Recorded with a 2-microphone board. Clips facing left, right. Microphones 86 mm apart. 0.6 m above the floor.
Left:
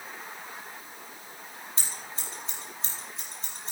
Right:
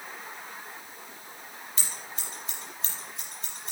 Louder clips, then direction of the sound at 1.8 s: Even; 35° left (ahead or behind).